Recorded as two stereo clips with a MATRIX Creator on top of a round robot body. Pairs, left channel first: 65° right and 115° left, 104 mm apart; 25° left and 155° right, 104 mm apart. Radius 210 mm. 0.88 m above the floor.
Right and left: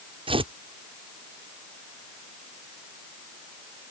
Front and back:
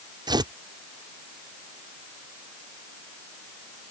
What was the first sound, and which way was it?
Tearing paper, 150° left.